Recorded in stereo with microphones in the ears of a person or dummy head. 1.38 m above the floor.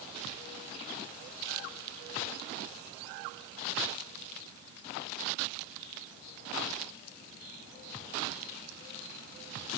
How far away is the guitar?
No guitar in this recording.